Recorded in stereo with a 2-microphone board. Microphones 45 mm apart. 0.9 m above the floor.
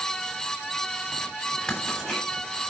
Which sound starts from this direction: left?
Writing, at 1.7 s.